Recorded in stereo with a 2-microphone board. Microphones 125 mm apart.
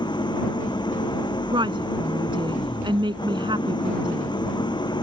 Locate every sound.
0.0 s an engine running: 35° left (ahead or behind)
1.5 s a woman speaking: 40° right (ahead or behind)